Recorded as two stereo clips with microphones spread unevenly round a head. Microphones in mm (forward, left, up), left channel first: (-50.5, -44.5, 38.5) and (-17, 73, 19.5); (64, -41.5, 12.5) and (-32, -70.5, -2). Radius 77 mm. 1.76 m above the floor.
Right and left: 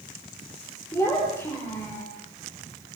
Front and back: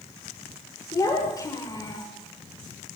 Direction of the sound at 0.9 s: 35° right.